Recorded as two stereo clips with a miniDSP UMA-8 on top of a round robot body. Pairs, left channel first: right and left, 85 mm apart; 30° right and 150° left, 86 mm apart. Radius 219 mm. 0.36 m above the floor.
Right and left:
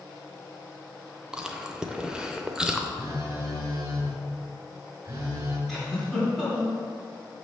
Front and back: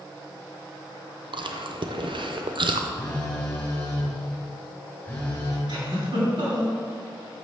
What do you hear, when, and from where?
1.3 s chewing: 170° left, 0.7 m
3.0 s a phone buzzing: 45° left, 2.5 m
5.7 s a giggle: straight behind, 3 m